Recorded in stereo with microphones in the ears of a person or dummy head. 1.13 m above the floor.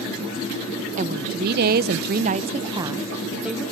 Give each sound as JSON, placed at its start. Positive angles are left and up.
{"t": 1.0, "sound": "a woman speaking", "side_deg": -40, "distance_m": 1.0}